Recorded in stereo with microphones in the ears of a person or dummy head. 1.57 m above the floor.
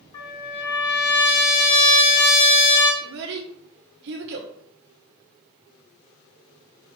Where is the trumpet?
30° left (ahead or behind), 3 m.